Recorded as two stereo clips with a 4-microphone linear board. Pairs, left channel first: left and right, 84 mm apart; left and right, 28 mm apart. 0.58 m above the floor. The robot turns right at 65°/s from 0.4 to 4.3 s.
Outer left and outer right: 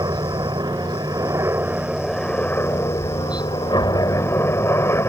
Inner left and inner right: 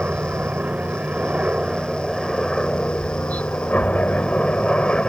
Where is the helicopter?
110° right; by 5.1 s 140° left.